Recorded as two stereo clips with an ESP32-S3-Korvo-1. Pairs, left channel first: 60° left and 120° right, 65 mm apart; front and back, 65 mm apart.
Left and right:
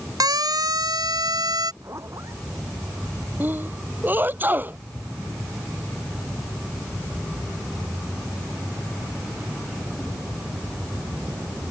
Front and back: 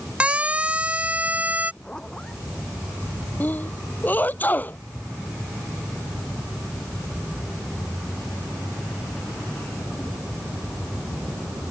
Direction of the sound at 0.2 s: 105° right.